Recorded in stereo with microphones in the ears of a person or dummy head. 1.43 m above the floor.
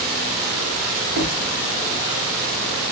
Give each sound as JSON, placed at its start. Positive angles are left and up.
{"t": 1.1, "sound": "knocking", "side_deg": -80, "distance_m": 2.5}